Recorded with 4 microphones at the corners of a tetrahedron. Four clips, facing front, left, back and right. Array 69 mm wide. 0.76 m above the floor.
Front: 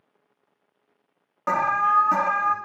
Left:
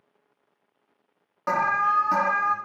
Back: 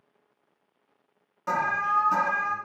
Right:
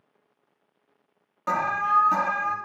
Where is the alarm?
20° left, 1.9 m.